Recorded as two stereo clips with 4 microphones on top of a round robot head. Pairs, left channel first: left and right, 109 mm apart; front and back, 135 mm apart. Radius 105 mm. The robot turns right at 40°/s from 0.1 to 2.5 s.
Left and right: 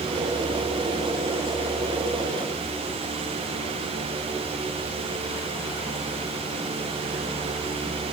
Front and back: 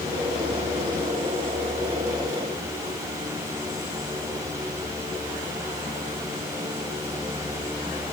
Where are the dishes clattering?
I don't hear dishes clattering.